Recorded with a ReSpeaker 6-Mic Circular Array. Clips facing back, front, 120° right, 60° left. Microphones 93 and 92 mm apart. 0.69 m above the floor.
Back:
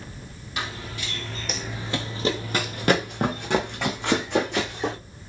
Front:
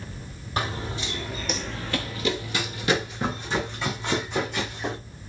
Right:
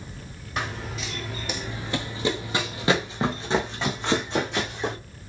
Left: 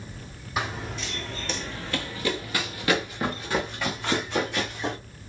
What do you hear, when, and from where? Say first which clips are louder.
0.6 s running footsteps: front 4 dB, left 1 dB; 25° right, 0.8 m; by 5.0 s 175° left, 2 m